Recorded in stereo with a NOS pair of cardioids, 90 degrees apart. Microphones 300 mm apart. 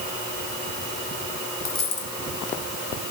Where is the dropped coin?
45° left, 3 m.